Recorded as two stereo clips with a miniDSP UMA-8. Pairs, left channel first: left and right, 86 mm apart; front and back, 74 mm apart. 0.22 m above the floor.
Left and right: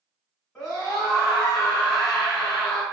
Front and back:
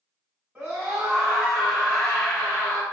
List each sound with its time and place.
0.6 s a scream: 170° right, 1.6 m; by 2.8 s 10° right, 1.6 m